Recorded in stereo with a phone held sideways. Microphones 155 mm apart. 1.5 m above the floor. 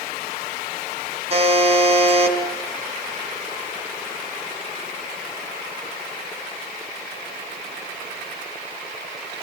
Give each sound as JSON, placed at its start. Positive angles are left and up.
{"t": 1.3, "sound": "a buzzer", "side_deg": -40, "distance_m": 4.5}